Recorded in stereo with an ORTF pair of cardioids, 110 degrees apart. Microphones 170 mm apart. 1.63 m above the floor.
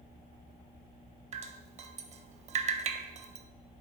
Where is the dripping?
45° right, 0.6 m.